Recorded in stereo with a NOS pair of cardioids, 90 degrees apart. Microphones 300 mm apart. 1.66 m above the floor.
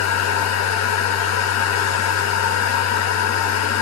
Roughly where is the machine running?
Ahead left.